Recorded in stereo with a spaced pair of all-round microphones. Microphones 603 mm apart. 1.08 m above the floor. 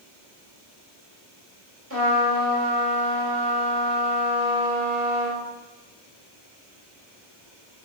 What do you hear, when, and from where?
1.9 s a trumpet: 25° right (ahead or behind), 1.7 m